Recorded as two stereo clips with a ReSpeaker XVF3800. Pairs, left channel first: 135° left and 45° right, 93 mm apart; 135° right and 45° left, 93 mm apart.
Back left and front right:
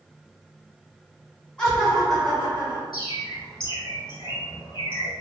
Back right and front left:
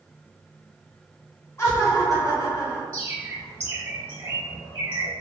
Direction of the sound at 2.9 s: 100° left.